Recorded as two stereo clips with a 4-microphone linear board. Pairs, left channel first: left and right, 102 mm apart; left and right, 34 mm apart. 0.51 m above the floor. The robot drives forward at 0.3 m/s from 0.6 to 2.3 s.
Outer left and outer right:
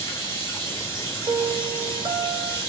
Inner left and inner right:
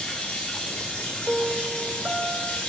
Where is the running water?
35° left (ahead or behind), 4 m.